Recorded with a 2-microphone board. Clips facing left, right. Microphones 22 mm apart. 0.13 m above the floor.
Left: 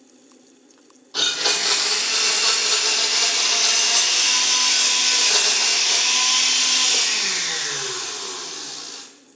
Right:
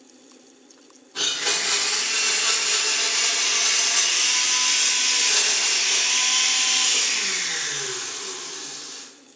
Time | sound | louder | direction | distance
1.1 | a blender | left 3 dB | 75° left (ahead or behind) | 1.3 m